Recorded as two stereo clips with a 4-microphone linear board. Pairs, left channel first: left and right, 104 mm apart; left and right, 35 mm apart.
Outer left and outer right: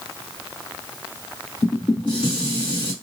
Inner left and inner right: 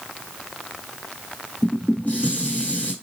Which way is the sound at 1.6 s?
45° left (ahead or behind).